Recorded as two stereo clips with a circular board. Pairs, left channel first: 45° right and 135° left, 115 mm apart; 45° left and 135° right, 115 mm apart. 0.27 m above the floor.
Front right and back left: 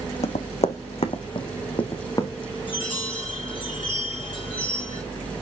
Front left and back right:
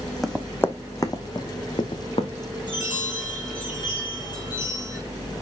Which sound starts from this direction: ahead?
A chime, at 2.7 s.